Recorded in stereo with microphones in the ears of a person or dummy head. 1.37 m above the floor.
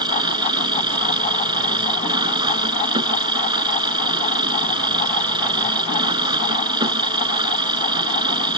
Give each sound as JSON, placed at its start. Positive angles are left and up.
{"t": 0.0, "sound": "an engine running", "side_deg": -25}